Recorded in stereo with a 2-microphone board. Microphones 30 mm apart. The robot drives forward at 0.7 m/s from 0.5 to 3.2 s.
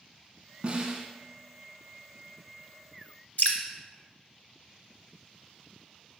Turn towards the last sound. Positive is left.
turn(degrees=60)  # may be behind; listen again after turning